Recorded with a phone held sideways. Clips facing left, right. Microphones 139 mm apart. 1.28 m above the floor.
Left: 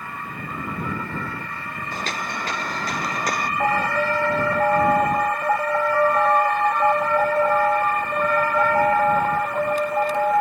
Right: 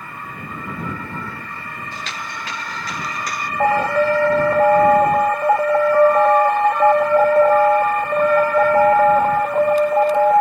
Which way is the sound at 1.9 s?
45° left (ahead or behind).